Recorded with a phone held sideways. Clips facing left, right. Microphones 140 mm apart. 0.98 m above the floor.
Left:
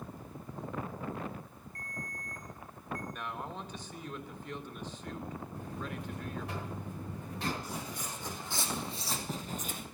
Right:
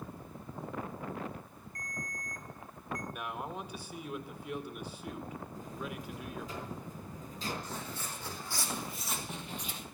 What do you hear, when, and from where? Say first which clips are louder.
1.8 s a ringtone: right 1 dB; 30° left (ahead or behind), 4.5 m
3.1 s a man speaking: right 1 dB; 10° right (ahead or behind), 1.6 m
5.5 s a buzzer: even; 65° left (ahead or behind), 3 m
7.6 s footsteps: left 1 dB; 10° left (ahead or behind), 3.5 m; by 9.8 s 50° left (ahead or behind), 2 m